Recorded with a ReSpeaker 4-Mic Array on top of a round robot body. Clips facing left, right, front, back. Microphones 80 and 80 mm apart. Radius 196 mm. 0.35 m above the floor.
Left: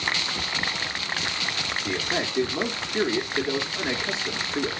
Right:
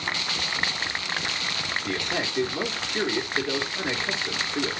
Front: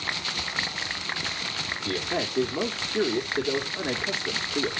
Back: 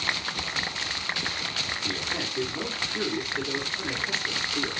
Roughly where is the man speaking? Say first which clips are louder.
Left 2 dB, front 7 dB; ahead.